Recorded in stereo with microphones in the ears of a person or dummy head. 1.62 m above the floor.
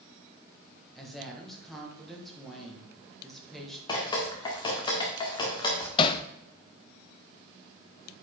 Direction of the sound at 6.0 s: 30° left (ahead or behind).